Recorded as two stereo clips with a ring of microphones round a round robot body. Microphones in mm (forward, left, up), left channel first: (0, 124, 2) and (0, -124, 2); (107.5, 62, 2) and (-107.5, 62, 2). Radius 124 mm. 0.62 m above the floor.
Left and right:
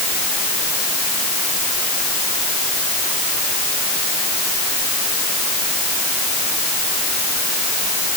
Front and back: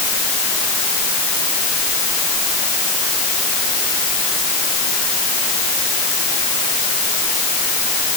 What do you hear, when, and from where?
Only background noise.